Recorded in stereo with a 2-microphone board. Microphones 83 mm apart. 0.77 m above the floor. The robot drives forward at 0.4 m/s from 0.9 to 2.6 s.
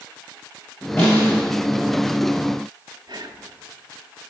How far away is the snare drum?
About 3.5 m.